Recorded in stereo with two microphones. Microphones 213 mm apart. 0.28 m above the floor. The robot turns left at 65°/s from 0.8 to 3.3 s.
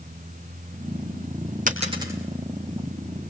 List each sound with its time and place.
1.7 s a dropped coin: 40° right (ahead or behind), 4 m; by 2.1 s 15° right (ahead or behind), 4 m